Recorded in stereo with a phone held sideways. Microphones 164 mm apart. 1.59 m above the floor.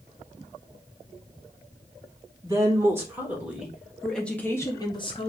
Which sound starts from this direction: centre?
A woman speaking, at 2.4 s.